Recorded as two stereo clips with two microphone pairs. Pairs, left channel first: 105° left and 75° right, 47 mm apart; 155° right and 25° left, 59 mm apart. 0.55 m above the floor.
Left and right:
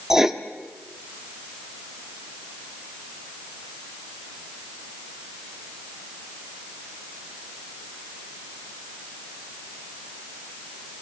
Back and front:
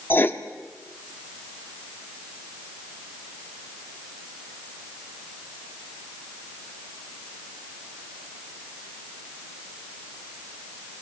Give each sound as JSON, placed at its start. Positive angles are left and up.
{"t": 0.1, "sound": "writing", "azimuth_deg": -145, "distance_m": 1.1}